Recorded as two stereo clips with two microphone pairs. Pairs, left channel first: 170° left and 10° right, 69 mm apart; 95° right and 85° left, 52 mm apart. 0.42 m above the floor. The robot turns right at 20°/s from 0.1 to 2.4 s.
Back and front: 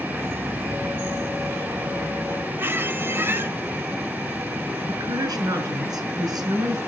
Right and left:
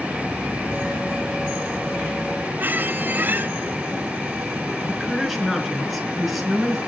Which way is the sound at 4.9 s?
5° right.